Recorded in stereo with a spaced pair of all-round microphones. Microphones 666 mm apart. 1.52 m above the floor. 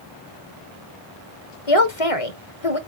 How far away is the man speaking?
About 1.3 m.